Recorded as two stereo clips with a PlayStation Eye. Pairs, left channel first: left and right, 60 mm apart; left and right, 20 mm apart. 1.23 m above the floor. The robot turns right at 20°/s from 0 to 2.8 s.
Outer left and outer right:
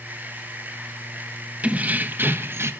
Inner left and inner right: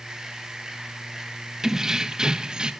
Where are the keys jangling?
25° right (ahead or behind), 0.9 m; by 2.7 s 45° right (ahead or behind), 0.9 m.